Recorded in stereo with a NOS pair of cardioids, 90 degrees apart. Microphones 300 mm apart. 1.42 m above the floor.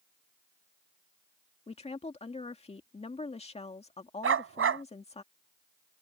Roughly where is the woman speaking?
Ahead.